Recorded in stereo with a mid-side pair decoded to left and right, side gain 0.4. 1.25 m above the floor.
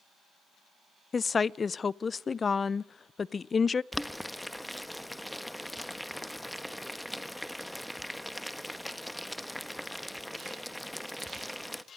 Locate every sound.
1.1 s a woman speaking: 35° left, 0.5 m
3.9 s boiling: straight ahead, 1.2 m